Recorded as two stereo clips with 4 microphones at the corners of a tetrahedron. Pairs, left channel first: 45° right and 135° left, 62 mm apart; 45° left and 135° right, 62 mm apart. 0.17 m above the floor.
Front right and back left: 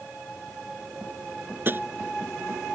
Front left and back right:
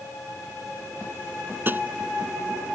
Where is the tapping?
Straight behind.